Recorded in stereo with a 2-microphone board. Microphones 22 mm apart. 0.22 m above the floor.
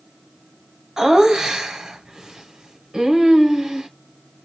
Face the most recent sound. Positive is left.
turn(degrees=-30)  # may be behind; listen again after turning